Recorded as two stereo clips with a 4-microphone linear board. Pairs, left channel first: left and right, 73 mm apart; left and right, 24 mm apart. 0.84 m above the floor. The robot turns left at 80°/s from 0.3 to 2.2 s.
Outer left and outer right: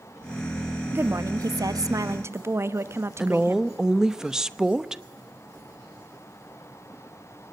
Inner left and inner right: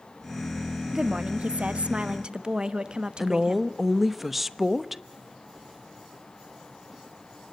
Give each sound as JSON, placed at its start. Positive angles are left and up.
{"t": 0.9, "sound": "a woman speaking", "azimuth_deg": -30, "distance_m": 1.1}
{"t": 3.2, "sound": "a woman speaking", "side_deg": -10, "distance_m": 0.9}